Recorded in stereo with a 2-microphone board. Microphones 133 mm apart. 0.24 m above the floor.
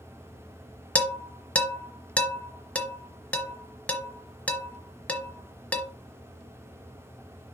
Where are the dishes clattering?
10° left (ahead or behind), 1.0 m.